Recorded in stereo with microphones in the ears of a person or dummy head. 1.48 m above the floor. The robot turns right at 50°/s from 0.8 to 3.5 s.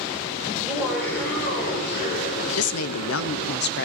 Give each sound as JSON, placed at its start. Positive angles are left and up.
{"t": 0.5, "sound": "laughter", "azimuth_deg": -5, "distance_m": 6.5}
{"t": 2.6, "sound": "a woman speaking", "azimuth_deg": 80, "distance_m": 0.6}